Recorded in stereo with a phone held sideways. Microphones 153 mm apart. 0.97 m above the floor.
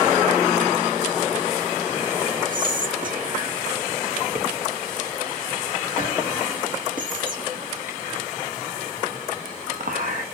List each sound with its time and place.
2.5 s whispering: 60° right (ahead or behind), 0.8 m